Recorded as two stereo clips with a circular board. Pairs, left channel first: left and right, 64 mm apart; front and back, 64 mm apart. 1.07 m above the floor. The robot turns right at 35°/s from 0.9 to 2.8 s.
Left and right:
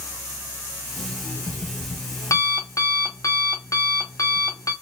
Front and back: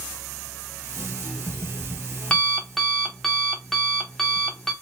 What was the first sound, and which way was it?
An alarm clock, 20° left.